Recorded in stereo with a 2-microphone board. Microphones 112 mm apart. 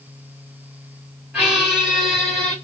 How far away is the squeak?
About 2.5 m.